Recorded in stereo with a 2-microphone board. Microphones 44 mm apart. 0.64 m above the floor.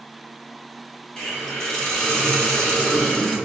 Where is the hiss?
20° left (ahead or behind), 1.1 m.